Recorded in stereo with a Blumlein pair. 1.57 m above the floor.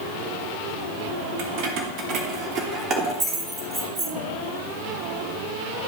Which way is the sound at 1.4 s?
45° right.